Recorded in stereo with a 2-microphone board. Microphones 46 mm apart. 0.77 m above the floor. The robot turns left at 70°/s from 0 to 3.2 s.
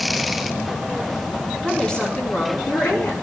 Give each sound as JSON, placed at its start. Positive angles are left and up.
{"t": 1.6, "sound": "a woman speaking", "azimuth_deg": -175, "distance_m": 7.0}